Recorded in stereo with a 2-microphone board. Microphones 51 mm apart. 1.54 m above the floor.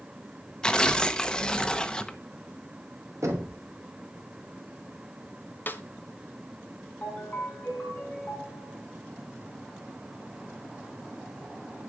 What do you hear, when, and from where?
0.6 s tearing paper: 15° left (ahead or behind), 0.8 m
3.2 s knocking: 75° right (ahead or behind), 3 m
5.7 s a snare drum: 40° left (ahead or behind), 1.0 m
7.0 s a ringtone: 30° left (ahead or behind), 6 m